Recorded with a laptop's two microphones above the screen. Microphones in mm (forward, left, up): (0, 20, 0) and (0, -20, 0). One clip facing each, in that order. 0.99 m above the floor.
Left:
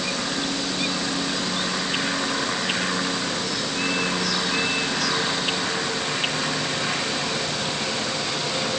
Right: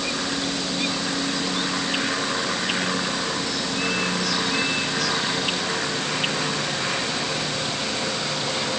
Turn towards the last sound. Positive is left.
No sound to turn to.